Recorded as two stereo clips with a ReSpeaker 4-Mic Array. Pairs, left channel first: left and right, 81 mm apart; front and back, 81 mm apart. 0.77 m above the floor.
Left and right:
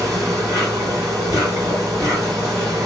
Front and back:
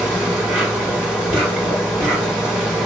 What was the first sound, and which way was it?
An insect, 115° right.